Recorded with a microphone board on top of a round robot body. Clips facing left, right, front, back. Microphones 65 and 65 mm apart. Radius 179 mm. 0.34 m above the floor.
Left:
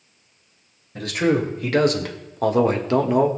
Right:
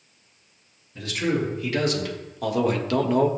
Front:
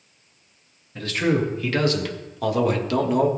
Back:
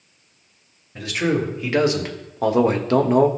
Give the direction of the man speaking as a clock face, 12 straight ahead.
9 o'clock.